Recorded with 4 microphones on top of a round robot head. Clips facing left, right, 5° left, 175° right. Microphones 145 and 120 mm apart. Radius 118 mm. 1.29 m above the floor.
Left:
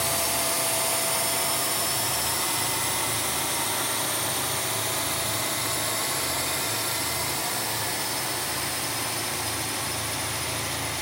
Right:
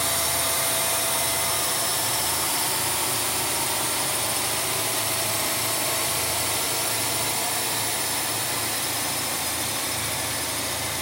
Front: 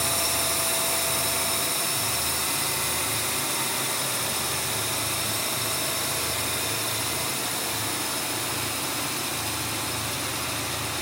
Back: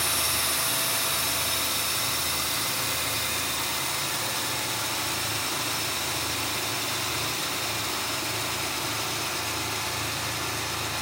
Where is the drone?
20° left; by 11.0 s 35° right.